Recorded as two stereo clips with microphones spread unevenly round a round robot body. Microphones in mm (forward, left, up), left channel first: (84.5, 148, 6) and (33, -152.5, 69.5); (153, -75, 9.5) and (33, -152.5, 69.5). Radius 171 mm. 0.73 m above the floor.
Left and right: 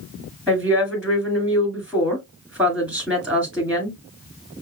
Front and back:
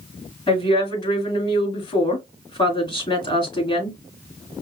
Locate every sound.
0.5 s a woman speaking: 10° right, 2.5 m